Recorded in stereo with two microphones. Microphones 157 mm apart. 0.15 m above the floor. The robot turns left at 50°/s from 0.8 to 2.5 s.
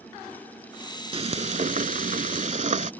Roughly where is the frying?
Ahead right.